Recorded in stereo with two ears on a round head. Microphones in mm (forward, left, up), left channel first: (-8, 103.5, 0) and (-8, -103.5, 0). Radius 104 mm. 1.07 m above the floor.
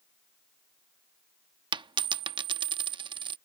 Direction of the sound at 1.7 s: 20° right (ahead or behind).